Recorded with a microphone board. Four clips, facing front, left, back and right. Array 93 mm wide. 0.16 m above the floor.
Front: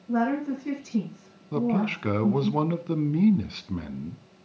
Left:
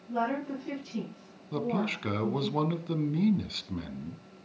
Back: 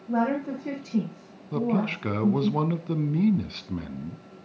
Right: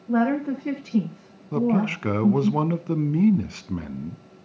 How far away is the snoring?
I don't hear snoring.